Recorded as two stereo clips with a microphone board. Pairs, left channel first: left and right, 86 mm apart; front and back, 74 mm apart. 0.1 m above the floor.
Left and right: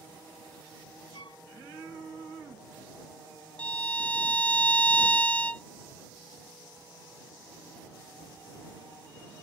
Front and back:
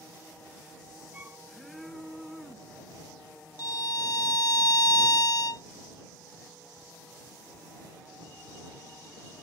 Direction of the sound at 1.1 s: 115° left.